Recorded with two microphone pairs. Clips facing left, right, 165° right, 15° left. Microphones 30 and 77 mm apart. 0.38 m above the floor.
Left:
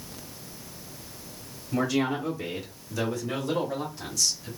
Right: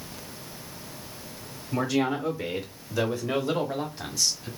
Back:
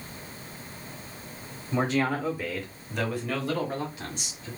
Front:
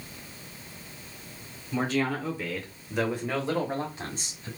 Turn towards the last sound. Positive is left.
turn(degrees=-30)